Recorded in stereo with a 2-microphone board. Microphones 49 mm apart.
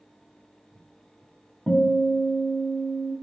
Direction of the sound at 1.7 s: Centre (ahead or behind).